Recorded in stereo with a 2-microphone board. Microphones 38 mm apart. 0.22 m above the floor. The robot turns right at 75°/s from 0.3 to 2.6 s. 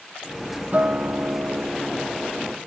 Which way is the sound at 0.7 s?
140° right.